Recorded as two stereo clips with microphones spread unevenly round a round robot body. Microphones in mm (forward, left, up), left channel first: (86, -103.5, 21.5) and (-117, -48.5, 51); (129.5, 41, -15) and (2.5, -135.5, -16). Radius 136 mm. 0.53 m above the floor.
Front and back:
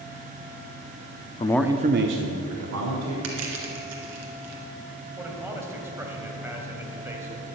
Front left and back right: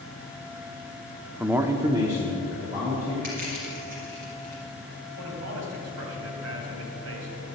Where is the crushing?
170° left, 2.5 m.